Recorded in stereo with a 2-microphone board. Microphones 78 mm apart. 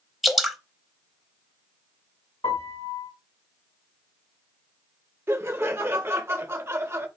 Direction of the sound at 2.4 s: 80° left.